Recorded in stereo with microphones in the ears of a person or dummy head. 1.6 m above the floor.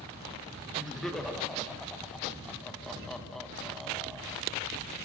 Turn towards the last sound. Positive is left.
turn(degrees=0)  # may be behind; listen again after turning